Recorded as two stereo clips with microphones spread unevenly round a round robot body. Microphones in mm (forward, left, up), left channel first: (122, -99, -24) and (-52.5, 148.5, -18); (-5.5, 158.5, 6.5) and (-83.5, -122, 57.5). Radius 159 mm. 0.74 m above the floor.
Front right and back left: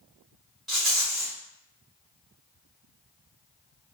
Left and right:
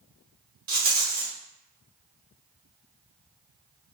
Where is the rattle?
145° right, 0.9 m.